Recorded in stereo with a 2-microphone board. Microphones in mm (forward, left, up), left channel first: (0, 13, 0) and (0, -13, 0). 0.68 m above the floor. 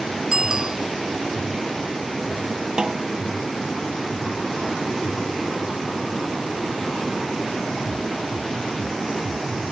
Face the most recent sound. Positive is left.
turn(degrees=-30)  # may be behind; listen again after turning